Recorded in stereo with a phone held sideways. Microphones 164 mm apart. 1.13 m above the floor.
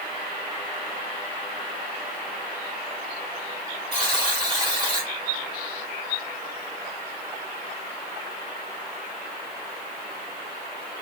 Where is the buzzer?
30° right (ahead or behind), 1.5 m.